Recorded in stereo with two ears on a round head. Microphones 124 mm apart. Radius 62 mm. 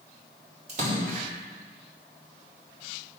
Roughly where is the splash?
Right.